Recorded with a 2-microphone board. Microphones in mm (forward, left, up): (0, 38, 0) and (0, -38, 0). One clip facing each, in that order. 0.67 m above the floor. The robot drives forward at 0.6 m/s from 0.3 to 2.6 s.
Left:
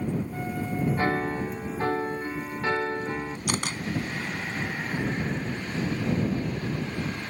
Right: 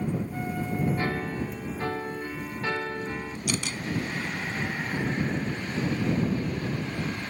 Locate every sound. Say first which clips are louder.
1.0 s a piano: left 3 dB; 35° left (ahead or behind); by 3.4 s 20° left (ahead or behind)
3.5 s a camera shutter: left 1 dB; 50° left (ahead or behind)